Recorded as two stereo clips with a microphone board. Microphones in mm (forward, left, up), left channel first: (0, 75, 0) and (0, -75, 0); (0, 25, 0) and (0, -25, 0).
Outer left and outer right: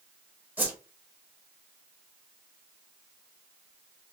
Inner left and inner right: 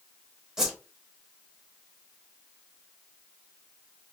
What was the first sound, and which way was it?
A whoosh, 10° right (ahead or behind).